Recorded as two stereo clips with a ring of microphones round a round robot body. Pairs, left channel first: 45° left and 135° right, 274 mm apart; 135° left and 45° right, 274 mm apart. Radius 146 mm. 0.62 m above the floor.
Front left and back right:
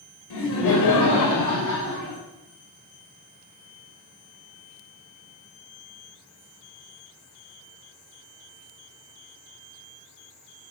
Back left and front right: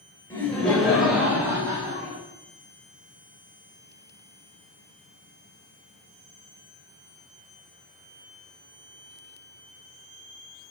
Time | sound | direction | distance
0.3 | laughter | 55° left | 3 m